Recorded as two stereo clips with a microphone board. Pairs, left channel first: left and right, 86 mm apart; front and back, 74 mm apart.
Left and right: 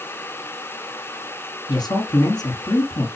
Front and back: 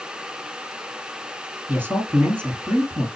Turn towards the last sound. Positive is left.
turn(degrees=120)